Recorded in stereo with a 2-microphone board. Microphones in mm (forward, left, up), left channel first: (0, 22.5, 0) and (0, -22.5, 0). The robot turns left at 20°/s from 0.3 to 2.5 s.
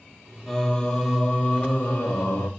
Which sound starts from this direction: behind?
Singing, at 0.5 s.